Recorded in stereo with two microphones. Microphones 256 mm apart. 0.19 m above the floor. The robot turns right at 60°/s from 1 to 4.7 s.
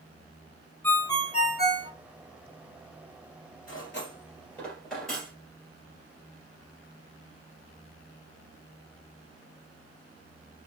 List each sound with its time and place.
0.8 s a ringtone: 10° left, 0.8 m; by 1.9 s 65° left, 0.8 m
3.7 s cutlery clinking: 60° left (ahead or behind), 2.5 m; by 5.3 s centre (ahead or behind), 2.5 m